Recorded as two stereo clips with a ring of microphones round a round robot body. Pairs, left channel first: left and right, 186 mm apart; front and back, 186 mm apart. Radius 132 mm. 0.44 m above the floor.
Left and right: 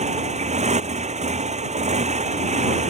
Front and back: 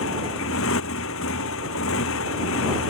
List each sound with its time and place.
0.0 s a motorcycle: 35° right